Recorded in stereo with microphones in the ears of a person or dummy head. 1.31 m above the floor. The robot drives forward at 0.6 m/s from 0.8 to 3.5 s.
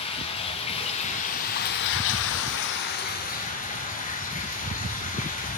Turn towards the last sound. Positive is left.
turn(degrees=35)  # may be behind; listen again after turning